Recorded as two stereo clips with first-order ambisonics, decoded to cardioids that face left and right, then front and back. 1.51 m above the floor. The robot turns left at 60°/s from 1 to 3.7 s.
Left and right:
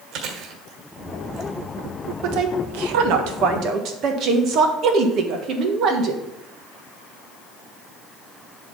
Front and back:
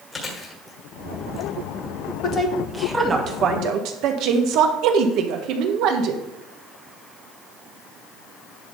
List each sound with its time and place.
0.1 s chewing: 65° right, 1.7 m; by 1.5 s 95° right, 1.7 m
2.2 s a woman speaking: 55° right, 1.3 m; by 6.2 s 140° right, 1.3 m